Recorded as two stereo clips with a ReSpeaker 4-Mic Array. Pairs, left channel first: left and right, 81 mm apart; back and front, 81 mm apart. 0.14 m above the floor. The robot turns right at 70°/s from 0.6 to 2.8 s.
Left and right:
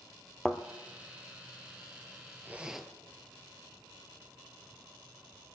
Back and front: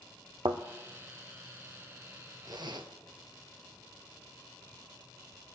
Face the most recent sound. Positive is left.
turn(degrees=-5)